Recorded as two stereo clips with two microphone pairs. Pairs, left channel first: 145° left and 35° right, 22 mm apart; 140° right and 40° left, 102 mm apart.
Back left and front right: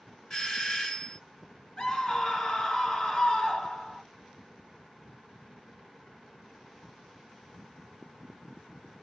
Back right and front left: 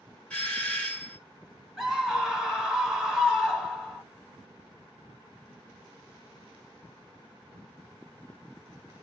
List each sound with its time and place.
0.3 s a doorbell: 155° left, 2.0 m
1.8 s a scream: 130° left, 1.4 m